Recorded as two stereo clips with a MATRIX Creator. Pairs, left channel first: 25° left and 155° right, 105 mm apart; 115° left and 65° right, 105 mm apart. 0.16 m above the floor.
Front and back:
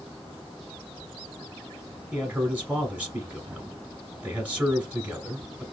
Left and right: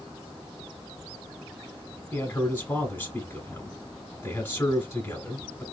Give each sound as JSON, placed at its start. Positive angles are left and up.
{"t": 2.1, "sound": "a man speaking", "azimuth_deg": 145, "distance_m": 1.0}